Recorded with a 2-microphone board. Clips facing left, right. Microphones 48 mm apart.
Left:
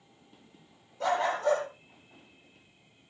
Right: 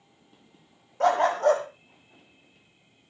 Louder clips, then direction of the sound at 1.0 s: Right 6 dB; 55° right (ahead or behind).